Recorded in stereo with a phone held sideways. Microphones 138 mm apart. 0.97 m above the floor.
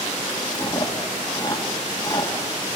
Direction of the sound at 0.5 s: 30° left (ahead or behind).